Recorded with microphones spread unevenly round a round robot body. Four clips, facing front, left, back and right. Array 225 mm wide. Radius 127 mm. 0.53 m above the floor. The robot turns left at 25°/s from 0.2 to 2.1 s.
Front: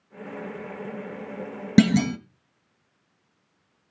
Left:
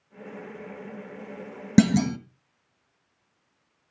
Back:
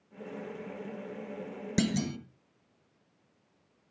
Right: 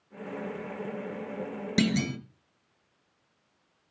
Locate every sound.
1.8 s a clunk: 40° left, 1.3 m; by 2.2 s 35° left, 1.3 m